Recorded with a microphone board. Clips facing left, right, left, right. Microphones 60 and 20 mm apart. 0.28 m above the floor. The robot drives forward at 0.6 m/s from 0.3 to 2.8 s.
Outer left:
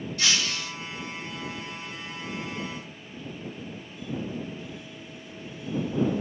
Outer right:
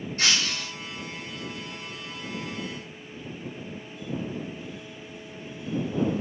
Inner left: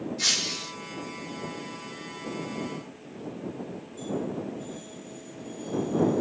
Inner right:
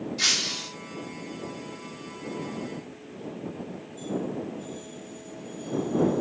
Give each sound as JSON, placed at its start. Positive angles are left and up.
{"t": 0.2, "sound": "breaking glass", "side_deg": -40, "distance_m": 6.0}